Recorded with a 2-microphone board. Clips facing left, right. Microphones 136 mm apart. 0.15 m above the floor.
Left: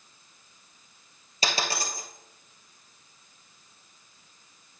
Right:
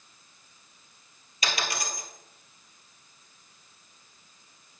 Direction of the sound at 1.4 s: 30° left (ahead or behind).